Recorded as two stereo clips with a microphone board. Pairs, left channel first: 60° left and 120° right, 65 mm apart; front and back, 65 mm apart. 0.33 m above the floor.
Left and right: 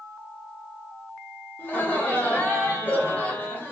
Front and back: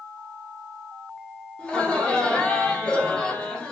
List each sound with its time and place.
1.6 s laughter: 55° left, 1.1 m